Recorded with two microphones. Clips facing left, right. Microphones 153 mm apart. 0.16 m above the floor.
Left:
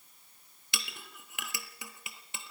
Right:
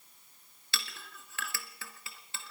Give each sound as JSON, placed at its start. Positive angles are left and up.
{"t": 0.7, "sound": "a clink", "side_deg": 15, "distance_m": 1.6}